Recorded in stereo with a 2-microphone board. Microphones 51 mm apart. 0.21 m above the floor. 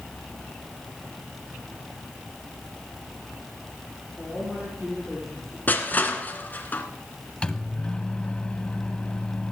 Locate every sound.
4.2 s a woman speaking: 5° right (ahead or behind), 6.5 m
5.7 s crushing: 35° left (ahead or behind), 1.7 m
7.4 s a microwave: 20° left (ahead or behind), 0.8 m